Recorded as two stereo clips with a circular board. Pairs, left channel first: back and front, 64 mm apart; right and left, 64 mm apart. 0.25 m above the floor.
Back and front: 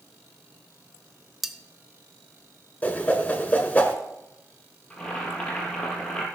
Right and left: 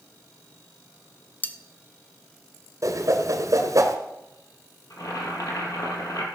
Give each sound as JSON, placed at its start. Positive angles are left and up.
{"t": 1.4, "sound": "cutlery clinking", "azimuth_deg": -85, "distance_m": 0.7}
{"t": 2.8, "sound": "a whoosh", "azimuth_deg": 115, "distance_m": 1.4}
{"t": 4.9, "sound": "boiling", "azimuth_deg": -105, "distance_m": 3.0}